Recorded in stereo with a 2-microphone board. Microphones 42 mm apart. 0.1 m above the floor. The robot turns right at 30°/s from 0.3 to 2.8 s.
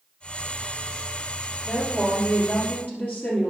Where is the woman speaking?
15° left, 3 m; by 3.5 s 50° left, 3 m.